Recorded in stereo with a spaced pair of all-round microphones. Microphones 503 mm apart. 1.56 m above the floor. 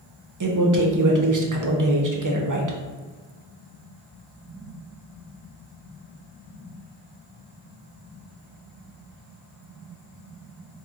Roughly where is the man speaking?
Right.